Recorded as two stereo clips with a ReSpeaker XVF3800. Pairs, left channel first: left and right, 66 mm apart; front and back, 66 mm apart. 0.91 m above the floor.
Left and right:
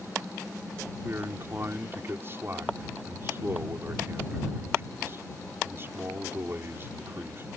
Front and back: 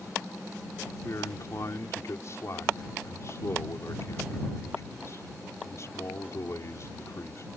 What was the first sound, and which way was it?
A man speaking, 40° right.